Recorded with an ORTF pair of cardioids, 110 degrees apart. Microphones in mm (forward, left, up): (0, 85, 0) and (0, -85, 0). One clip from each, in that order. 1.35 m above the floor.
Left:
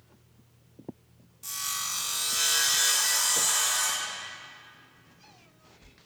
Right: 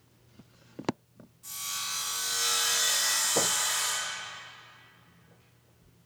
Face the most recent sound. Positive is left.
turn(degrees=60)